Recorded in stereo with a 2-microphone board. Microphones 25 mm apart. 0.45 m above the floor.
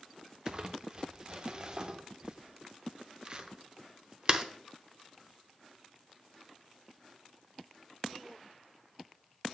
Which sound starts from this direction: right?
Crumpling, at 0.5 s.